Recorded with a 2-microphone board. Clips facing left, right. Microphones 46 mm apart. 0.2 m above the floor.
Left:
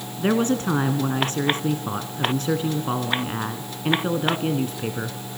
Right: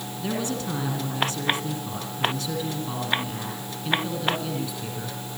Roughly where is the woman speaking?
Left.